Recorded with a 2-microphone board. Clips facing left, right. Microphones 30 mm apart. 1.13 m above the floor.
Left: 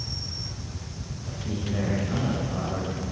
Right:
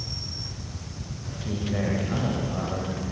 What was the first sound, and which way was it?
A man speaking, 25° right (ahead or behind).